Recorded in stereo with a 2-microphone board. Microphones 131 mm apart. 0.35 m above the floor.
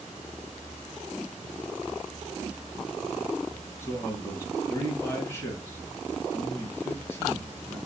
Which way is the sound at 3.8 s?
20° left (ahead or behind).